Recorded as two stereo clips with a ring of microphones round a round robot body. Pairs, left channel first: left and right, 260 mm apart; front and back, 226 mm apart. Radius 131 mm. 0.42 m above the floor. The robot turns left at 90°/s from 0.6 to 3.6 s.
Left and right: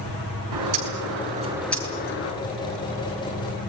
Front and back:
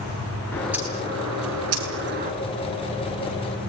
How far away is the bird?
About 6.5 m.